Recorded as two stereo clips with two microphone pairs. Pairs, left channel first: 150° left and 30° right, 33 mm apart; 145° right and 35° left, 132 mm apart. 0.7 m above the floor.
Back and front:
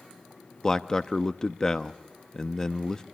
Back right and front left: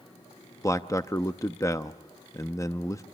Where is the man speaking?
165° right, 0.6 m.